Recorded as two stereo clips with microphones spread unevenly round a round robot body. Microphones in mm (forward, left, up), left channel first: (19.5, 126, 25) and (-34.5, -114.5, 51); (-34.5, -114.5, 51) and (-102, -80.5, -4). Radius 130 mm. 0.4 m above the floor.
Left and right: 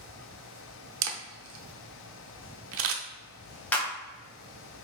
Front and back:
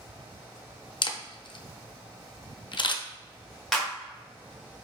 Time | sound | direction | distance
1.0 | a camera shutter | 80° right | 0.6 m
3.7 | a clap | 150° left | 1.3 m